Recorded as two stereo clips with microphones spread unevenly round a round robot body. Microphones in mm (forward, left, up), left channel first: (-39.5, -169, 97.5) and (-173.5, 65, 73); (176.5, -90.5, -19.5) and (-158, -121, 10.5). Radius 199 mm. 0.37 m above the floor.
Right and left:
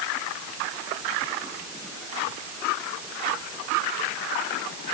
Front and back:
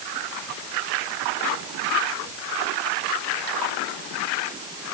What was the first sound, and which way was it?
Only background noise.